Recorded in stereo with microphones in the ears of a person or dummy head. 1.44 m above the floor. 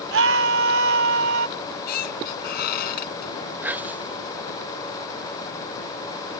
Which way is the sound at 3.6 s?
10° right (ahead or behind).